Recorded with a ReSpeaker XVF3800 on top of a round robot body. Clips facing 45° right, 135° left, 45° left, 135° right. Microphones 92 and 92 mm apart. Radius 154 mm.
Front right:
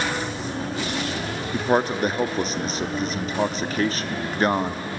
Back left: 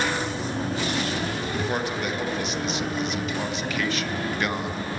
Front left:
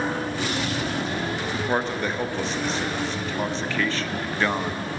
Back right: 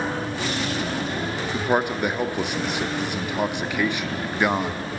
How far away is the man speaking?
About 1.3 m.